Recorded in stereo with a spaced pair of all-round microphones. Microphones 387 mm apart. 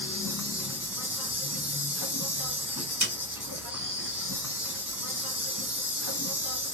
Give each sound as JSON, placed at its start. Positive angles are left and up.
{"t": 0.0, "sound": "an insect", "side_deg": 55, "distance_m": 1.3}
{"t": 3.0, "sound": "a snare drum", "side_deg": 45, "distance_m": 1.7}